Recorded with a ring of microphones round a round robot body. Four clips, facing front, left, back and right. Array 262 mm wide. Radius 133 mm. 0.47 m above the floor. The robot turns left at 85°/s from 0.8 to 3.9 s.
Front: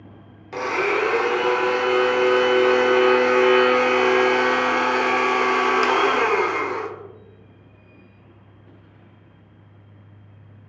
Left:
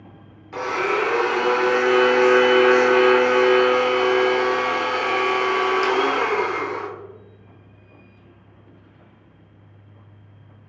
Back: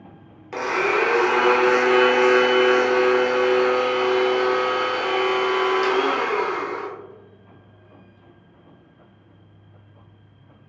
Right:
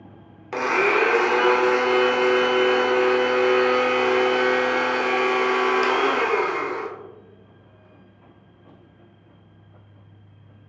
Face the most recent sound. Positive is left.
turn(degrees=0)